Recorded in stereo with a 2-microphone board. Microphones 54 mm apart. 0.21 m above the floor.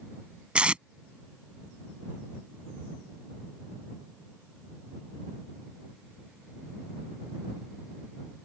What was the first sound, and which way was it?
Tape being pulled, 20° right (ahead or behind).